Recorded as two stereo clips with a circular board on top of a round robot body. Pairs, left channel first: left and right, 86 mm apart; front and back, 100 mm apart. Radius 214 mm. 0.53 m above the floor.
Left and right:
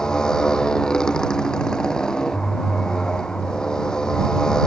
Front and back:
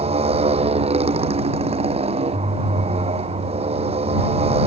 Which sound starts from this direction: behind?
A motorcycle, at 0.0 s.